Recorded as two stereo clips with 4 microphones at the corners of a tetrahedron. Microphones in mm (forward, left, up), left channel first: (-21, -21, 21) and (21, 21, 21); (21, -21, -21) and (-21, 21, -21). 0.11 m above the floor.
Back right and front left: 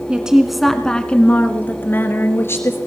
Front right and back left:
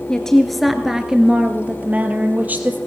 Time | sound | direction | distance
0.1 | a woman speaking | 5° left | 1.3 m